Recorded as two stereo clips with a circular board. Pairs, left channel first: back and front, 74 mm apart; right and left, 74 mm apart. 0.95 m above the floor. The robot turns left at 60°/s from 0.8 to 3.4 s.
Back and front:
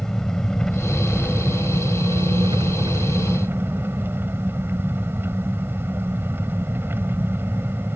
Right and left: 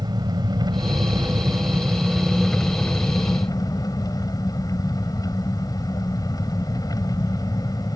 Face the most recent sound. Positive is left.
turn(degrees=-60)